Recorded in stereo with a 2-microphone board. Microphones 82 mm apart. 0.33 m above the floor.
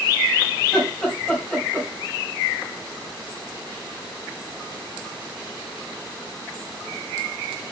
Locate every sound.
0.6 s laughter: centre (ahead or behind), 2 m